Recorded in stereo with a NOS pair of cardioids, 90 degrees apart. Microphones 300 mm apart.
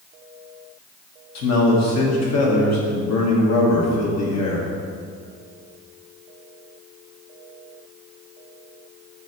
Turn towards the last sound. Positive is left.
turn(degrees=60)